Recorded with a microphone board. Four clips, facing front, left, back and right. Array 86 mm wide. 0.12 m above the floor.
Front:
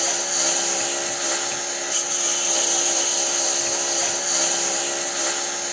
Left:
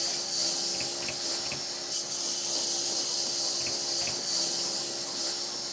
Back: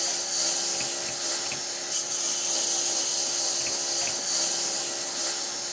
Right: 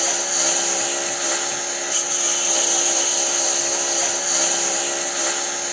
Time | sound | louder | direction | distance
0.0 | a lawn mower | right 14 dB, front 9 dB | 60° right | ?